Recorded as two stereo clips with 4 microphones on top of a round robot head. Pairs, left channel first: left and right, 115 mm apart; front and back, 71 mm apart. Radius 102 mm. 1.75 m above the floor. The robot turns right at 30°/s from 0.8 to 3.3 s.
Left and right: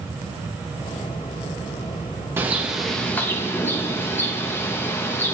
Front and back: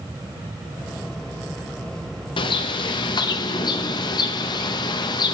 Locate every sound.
2.4 s a bird: 15° right, 0.6 m; by 5.3 s 15° left, 0.6 m